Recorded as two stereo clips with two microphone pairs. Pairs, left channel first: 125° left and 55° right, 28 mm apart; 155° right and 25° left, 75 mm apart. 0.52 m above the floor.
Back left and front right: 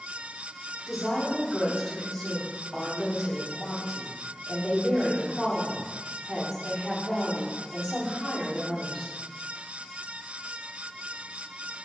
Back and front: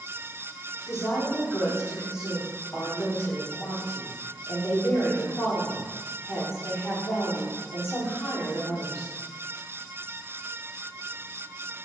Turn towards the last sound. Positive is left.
turn(degrees=-170)